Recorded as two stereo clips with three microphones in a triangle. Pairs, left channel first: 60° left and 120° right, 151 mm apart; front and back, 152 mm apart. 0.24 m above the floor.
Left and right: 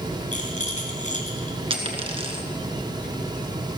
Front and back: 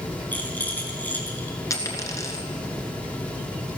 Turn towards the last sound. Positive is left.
turn(degrees=-65)